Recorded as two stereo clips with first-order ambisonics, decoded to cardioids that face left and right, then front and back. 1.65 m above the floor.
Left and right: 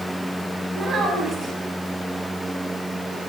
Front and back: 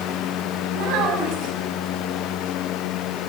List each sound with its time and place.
0.7 s a child speaking: 155° right, 6.5 m